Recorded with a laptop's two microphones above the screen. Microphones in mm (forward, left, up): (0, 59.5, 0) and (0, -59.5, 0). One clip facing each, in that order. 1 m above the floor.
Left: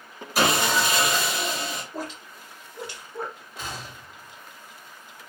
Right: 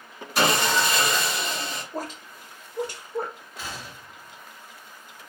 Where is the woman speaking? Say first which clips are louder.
Right 1 dB; 50° right (ahead or behind), 1.1 m.